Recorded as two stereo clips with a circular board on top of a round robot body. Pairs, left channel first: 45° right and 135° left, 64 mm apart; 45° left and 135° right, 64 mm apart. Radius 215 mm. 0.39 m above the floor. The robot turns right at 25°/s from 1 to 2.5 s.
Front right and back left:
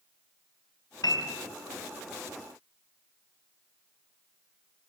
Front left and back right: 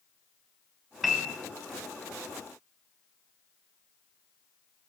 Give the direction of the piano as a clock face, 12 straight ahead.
2 o'clock.